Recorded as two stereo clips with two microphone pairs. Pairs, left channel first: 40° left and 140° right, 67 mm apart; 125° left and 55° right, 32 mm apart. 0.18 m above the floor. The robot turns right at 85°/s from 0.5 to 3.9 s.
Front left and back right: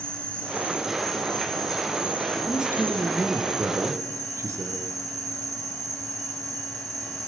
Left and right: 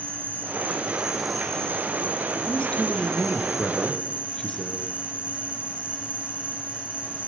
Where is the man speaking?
55° left, 3 m; by 4.9 s straight behind, 3 m.